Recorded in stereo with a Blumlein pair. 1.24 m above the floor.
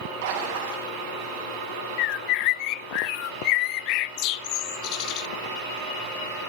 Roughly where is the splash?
Ahead right.